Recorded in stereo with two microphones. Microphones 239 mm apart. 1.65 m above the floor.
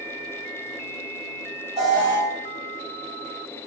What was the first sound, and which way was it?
An alarm, 25° right (ahead or behind).